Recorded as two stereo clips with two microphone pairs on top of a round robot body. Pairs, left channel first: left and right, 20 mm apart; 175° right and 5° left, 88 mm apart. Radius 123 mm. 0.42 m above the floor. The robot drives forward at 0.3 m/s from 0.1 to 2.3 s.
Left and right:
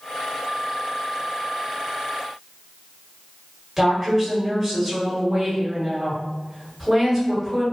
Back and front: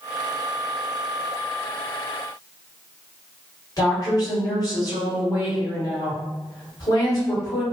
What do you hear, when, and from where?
3.8 s a woman speaking: 165° left, 1.8 m